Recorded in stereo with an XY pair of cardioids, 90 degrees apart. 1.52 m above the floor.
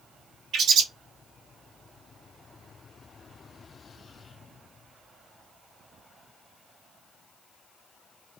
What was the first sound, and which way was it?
A bird, 65° right.